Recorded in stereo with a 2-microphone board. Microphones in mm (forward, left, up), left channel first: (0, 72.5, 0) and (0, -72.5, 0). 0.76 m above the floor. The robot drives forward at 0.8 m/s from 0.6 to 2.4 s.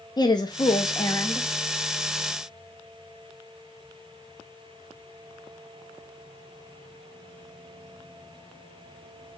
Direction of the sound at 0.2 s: 30° left (ahead or behind).